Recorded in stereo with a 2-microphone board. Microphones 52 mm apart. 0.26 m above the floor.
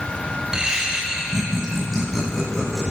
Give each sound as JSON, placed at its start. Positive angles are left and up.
{"t": 0.5, "sound": "laughter", "side_deg": -15, "distance_m": 0.9}